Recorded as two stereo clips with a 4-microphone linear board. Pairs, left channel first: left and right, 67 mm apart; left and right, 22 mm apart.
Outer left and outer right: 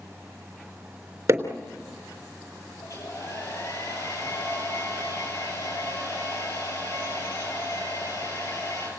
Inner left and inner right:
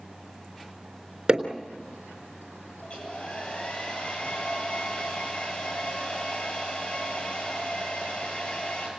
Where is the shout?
I don't hear a shout.